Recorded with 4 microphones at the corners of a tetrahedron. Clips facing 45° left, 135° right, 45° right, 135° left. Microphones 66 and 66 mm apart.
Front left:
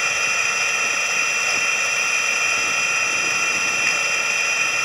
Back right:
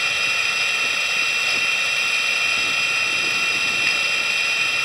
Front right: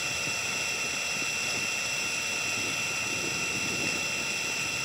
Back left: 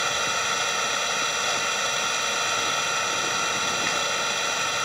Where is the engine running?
120° left.